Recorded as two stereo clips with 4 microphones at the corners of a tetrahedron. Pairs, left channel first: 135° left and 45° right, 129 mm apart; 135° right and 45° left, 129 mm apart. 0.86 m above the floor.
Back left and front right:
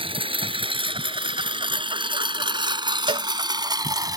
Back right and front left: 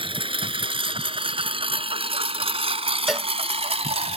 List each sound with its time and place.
0.0 s a lawn mower: straight ahead; by 4.2 s 15° left
3.1 s a cowbell: 40° right